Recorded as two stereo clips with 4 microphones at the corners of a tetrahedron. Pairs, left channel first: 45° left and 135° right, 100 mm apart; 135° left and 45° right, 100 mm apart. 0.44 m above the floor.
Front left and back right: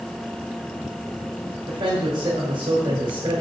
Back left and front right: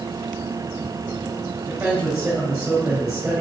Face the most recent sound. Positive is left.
turn(degrees=-120)